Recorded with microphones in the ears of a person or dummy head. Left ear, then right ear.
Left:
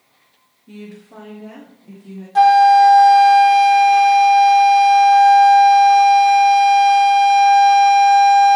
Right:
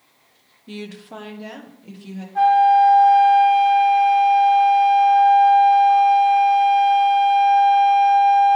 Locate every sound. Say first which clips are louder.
0.7 s a woman speaking: right 4 dB; 25° right (ahead or behind), 0.6 m; by 2.2 s 45° right (ahead or behind), 1.8 m
2.4 s a flute: left 4 dB; 75° left (ahead or behind), 0.5 m